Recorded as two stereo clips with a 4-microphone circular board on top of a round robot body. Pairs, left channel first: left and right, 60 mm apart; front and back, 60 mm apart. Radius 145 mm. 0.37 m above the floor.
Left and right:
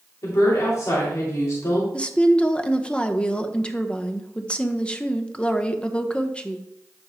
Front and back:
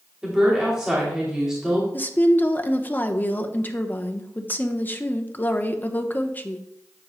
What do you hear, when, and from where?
0.2 s a woman speaking: 100° left, 2.5 m
1.9 s a woman speaking: 30° left, 1.0 m